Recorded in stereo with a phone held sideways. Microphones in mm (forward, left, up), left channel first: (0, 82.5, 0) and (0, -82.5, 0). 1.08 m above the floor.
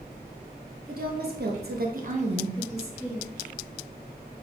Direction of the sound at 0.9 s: 65° right (ahead or behind).